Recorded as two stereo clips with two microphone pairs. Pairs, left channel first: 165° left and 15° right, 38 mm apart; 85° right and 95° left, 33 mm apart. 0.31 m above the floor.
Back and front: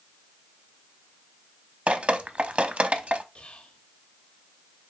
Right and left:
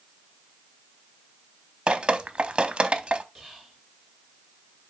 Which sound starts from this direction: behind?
Whispering, at 3.4 s.